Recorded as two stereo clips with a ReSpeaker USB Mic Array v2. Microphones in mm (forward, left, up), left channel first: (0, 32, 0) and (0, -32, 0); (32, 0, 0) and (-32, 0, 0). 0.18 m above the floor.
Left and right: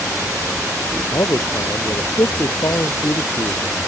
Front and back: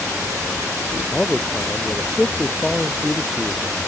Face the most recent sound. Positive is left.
turn(degrees=75)